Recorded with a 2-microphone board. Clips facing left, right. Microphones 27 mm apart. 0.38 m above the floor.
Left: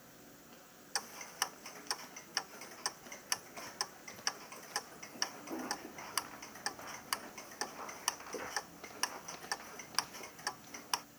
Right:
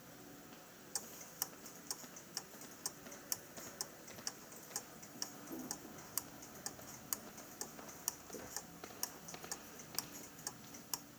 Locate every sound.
0.9 s ticking: 55° left (ahead or behind)